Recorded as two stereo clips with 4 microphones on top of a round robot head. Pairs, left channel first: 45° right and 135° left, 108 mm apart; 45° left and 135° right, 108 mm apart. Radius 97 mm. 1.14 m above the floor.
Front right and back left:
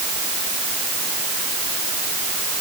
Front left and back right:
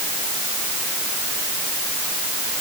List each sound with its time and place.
Only background noise.